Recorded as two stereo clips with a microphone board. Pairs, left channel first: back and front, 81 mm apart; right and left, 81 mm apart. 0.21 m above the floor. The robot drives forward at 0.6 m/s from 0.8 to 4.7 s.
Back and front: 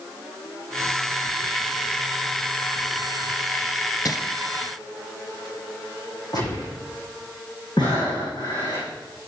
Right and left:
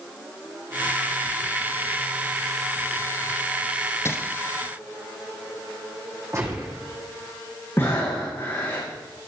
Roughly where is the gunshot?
Behind left.